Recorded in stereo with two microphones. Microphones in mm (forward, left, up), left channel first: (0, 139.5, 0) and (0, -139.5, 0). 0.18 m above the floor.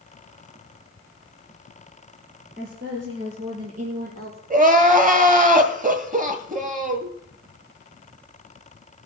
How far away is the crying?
About 1.6 m.